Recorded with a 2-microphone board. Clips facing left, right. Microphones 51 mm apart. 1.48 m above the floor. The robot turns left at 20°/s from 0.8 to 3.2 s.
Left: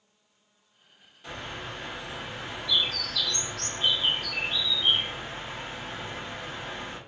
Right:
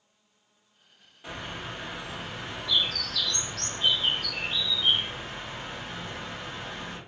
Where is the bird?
160° right, 1.3 m; by 7.0 s 160° left, 1.3 m.